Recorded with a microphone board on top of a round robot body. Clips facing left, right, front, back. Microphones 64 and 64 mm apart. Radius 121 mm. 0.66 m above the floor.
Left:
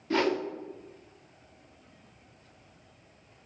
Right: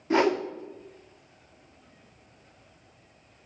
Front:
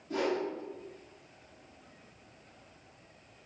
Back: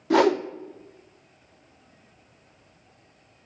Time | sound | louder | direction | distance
0.1 | a whoosh | right 4 dB, back 12 dB | 160° right | 0.5 m